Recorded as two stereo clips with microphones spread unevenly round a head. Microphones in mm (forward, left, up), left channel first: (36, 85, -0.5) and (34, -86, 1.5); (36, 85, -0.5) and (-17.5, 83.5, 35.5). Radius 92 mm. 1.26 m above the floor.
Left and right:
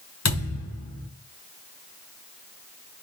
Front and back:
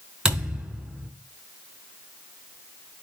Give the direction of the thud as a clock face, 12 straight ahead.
8 o'clock.